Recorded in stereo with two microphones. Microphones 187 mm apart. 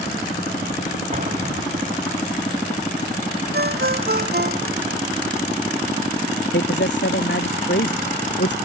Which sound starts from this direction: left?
A man speaking, at 6.5 s.